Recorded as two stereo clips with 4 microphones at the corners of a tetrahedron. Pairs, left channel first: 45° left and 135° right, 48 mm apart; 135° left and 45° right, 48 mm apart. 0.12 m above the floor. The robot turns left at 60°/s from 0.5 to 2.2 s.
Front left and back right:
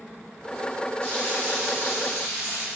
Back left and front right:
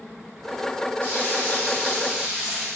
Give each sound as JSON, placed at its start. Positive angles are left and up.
{"t": 1.0, "sound": "frying", "azimuth_deg": 115, "distance_m": 4.5}